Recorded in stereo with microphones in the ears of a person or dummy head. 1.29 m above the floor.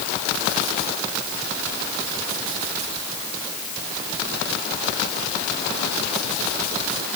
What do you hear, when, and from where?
Only background noise.